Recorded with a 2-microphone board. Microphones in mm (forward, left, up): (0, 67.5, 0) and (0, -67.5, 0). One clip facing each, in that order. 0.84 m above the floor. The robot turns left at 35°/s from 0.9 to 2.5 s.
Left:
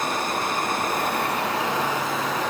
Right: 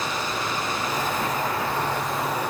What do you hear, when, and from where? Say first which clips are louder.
0.0 s running water: left 2 dB; 135° left, 4 m; by 2.5 s 75° left, 4 m